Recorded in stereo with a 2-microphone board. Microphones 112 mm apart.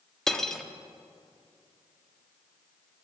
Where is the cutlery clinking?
5° left (ahead or behind), 1.0 m.